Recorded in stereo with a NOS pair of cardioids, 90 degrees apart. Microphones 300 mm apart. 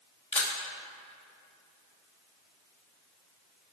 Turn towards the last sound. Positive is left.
turn(degrees=20)